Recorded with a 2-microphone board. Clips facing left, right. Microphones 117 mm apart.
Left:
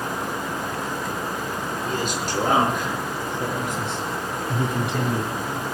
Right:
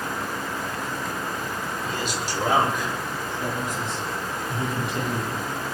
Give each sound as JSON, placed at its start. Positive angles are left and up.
{"t": 1.8, "sound": "a man speaking", "side_deg": 50, "distance_m": 5.5}